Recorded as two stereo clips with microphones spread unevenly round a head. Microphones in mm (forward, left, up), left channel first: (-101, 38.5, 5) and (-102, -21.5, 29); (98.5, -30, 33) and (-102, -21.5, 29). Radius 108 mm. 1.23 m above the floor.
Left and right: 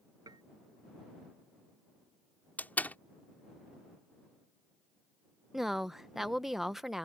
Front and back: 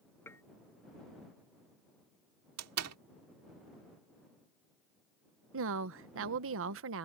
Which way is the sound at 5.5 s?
175° left.